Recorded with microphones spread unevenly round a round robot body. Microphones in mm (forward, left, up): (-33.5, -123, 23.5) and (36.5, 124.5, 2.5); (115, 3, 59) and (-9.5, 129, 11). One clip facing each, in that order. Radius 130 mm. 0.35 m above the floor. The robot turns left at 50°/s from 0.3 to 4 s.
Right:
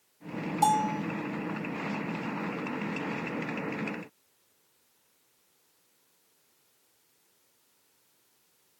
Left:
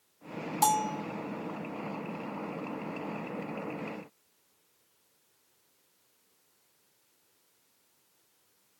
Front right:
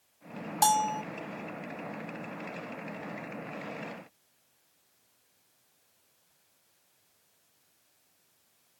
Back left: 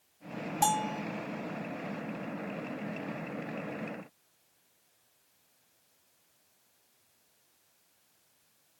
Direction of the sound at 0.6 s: 10° left.